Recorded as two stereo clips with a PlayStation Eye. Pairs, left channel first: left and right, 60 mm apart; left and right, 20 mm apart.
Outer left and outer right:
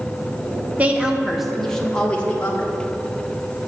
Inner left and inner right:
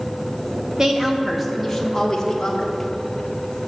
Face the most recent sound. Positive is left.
turn(degrees=30)  # may be behind; listen again after turning